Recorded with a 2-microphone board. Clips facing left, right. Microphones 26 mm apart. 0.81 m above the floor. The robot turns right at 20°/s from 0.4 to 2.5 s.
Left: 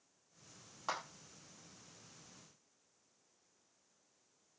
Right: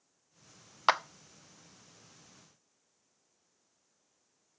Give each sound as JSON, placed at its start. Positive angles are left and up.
{"t": 0.9, "sound": "a clap", "side_deg": -70, "distance_m": 0.7}